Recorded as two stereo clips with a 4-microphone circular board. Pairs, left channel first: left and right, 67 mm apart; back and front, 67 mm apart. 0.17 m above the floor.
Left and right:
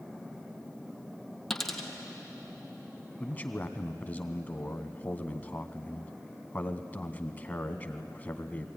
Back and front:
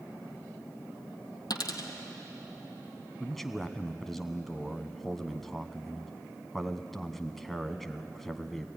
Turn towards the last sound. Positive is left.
turn(degrees=100)